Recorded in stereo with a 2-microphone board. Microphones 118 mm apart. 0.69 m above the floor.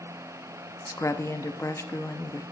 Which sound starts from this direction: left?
A woman speaking, at 0.9 s.